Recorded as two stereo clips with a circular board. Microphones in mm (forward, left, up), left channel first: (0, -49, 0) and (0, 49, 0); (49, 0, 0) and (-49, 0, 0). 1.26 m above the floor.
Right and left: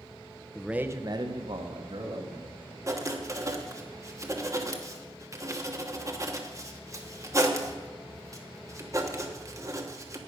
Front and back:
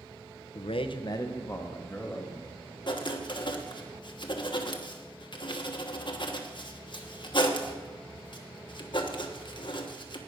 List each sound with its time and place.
0.6 s a man speaking: 5° right, 0.7 m; by 2.5 s 80° left, 2.5 m
2.9 s writing: 35° left, 1.2 m